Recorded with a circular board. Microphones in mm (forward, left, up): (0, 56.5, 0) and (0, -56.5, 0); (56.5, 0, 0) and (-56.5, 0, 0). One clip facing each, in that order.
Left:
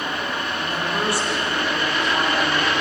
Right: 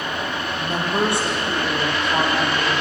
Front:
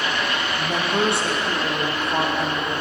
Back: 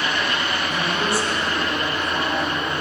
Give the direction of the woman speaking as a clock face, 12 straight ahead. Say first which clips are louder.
Right 5 dB, front 2 dB; 1 o'clock.